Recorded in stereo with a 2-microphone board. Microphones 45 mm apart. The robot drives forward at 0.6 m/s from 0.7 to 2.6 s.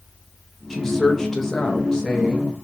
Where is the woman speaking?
10° left (ahead or behind), 0.9 m.